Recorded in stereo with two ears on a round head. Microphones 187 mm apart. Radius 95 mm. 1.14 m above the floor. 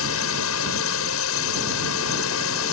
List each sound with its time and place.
0.0 s a drone: 75° left (ahead or behind)